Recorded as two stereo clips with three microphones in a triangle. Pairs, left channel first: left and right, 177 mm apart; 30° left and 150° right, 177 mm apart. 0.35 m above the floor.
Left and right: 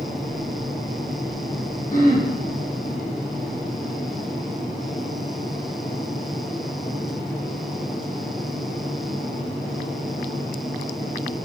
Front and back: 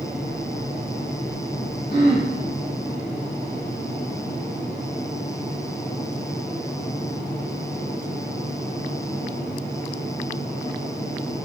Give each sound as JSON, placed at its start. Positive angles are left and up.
{"t": 1.9, "sound": "throat clearing", "azimuth_deg": 50, "distance_m": 3.0}